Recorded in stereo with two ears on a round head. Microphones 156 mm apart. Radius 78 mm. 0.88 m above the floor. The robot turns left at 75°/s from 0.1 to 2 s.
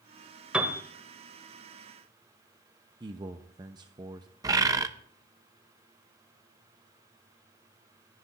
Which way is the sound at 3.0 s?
25° right (ahead or behind).